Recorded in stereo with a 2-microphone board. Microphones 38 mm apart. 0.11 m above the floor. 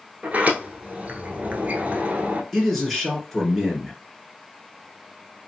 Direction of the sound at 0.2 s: 40° right (ahead or behind).